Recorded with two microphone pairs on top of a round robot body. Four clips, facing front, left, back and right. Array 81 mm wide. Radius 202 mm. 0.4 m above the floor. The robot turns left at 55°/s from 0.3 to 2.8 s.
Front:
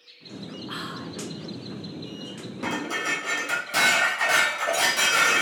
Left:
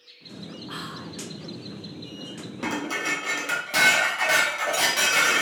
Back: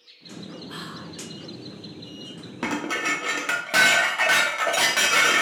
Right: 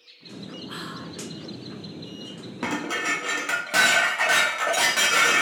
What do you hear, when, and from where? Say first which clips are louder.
0.7 s whispering: left 1 dB, front 3 dB; 15° left, 0.9 m; by 1.2 s 10° right, 0.9 m
2.6 s dishes clattering: right 1 dB, back 2 dB; 145° right, 0.9 m; by 5.4 s 155° right, 0.9 m